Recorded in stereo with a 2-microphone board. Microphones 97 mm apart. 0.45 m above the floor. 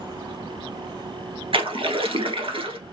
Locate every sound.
1.5 s a splash: 75° right (ahead or behind), 1.4 m